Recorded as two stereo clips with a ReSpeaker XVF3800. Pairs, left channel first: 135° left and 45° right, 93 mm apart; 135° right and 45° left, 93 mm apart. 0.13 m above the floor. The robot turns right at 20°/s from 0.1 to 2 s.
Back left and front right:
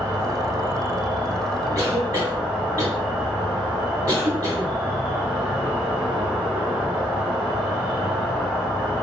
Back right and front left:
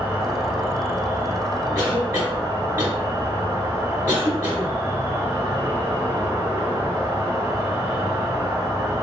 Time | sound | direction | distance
0.0 | an insect | 10° right | 1.0 m
1.8 | a cough | straight ahead | 1.7 m